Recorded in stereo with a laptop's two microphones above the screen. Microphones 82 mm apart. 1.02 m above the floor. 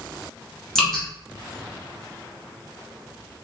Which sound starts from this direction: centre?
Dripping, at 0.8 s.